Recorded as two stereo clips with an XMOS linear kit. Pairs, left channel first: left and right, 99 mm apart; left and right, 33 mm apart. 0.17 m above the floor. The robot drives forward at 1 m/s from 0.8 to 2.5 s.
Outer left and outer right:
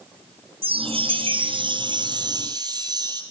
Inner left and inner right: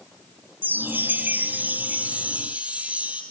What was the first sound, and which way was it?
A chime, 70° right (ahead or behind).